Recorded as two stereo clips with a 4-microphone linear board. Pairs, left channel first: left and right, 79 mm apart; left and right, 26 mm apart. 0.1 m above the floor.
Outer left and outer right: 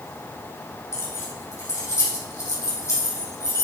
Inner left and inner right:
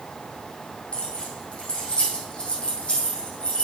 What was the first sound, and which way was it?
Keys jangling, 40° left (ahead or behind).